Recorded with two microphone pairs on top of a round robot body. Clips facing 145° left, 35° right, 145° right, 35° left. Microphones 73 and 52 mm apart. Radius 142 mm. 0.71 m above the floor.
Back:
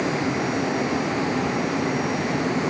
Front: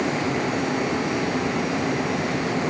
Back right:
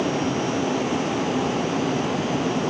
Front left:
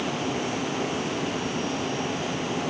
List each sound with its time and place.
Only background noise.